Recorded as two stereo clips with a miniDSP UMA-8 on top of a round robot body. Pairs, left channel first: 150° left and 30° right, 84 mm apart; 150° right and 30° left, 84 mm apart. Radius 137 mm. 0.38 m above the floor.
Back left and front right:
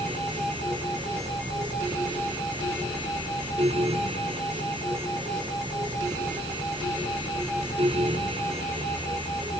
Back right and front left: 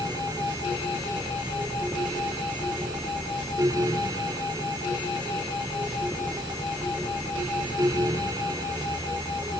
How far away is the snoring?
No snoring in this recording.